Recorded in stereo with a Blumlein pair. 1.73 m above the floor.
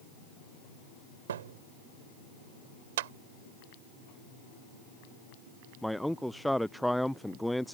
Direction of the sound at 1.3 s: 60° right.